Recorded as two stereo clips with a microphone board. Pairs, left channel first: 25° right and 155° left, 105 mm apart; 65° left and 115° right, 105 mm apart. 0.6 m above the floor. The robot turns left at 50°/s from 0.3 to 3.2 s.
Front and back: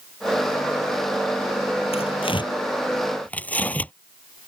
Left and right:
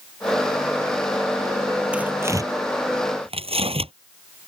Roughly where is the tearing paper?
Ahead right.